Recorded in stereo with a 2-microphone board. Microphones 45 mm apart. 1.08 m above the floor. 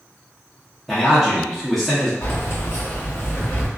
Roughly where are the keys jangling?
Left.